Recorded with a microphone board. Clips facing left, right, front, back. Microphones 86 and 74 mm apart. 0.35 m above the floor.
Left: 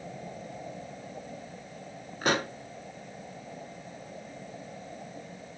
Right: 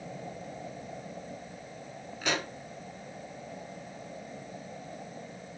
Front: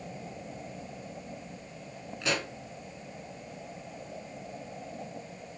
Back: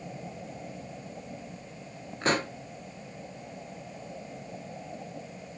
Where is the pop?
135° left, 0.7 m.